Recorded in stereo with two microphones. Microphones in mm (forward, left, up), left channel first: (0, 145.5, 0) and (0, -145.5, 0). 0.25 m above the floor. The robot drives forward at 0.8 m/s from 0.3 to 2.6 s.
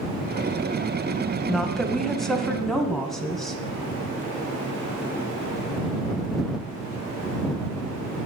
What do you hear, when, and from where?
1.5 s a woman speaking: centre (ahead or behind), 1.3 m